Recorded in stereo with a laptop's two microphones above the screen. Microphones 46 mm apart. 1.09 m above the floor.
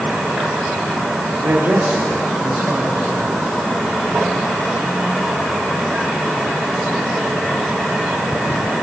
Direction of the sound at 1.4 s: 85° right.